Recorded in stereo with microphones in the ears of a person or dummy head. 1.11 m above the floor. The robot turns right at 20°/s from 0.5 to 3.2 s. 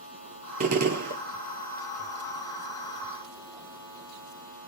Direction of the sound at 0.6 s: 55° right (ahead or behind).